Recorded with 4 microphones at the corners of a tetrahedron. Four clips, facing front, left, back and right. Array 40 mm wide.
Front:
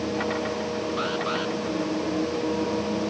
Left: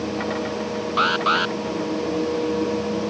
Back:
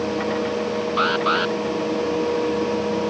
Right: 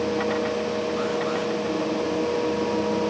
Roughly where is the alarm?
Behind left.